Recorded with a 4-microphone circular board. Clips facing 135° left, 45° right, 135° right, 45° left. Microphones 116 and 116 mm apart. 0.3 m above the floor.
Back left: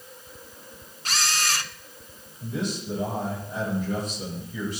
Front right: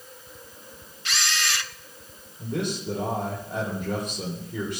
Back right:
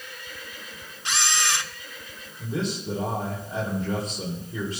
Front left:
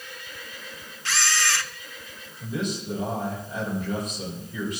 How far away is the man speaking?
About 9.5 m.